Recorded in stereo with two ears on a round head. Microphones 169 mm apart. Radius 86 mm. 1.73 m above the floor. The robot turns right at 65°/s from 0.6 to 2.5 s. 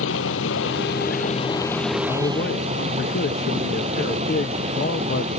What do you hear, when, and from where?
0.0 s running water: 95° left; by 5.4 s 140° right
2.1 s a man speaking: 25° left (ahead or behind); by 5.3 s 50° left (ahead or behind)